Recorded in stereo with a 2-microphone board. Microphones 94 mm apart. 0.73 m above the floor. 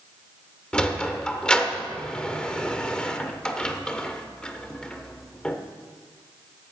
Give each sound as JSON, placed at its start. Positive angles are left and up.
{"t": 0.7, "sound": "a sliding door", "side_deg": 10, "distance_m": 1.0}